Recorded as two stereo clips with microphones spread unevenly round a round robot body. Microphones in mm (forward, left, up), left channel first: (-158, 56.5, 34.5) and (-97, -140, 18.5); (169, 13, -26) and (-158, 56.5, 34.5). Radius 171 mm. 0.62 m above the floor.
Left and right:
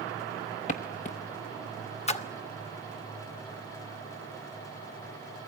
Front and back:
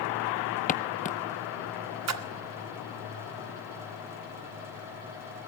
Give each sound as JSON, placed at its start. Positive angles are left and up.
{"t": 0.7, "sound": "footsteps", "azimuth_deg": 65, "distance_m": 0.8}
{"t": 2.1, "sound": "a splash", "azimuth_deg": 150, "distance_m": 1.5}